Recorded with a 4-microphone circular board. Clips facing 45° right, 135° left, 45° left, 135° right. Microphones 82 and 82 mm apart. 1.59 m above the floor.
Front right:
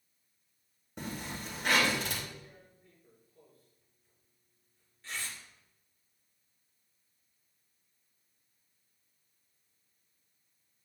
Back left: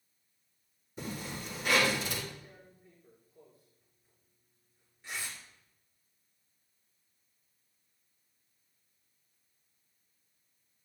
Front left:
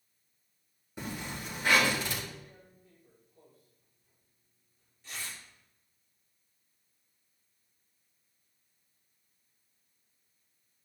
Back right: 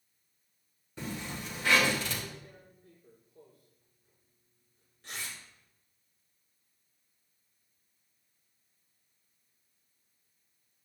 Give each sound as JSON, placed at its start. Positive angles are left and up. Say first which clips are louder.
{"t": 1.0, "sound": "a zipper", "louder": "even, even", "azimuth_deg": -30, "distance_m": 4.0}
{"t": 2.4, "sound": "tearing paper", "louder": "back left 1 dB, back right 2 dB", "azimuth_deg": -145, "distance_m": 3.0}